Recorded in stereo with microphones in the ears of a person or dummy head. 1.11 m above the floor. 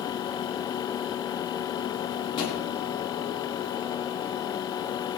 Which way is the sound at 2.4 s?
30° left (ahead or behind).